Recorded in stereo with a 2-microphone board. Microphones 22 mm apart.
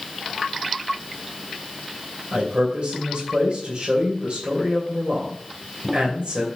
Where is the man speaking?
70° right (ahead or behind), 3 m.